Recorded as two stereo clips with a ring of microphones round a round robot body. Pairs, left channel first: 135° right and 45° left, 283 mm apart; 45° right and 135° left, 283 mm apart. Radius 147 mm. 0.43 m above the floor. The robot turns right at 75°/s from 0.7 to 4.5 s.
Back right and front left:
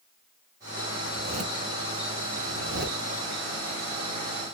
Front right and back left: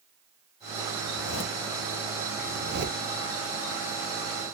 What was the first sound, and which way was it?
A zipper, 40° right.